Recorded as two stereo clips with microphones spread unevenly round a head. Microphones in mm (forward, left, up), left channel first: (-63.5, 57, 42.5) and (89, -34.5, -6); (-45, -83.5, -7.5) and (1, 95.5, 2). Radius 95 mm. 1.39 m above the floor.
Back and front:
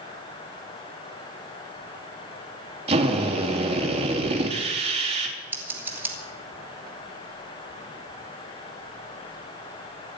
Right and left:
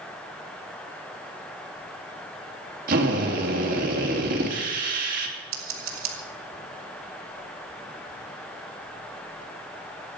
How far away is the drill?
About 3 m.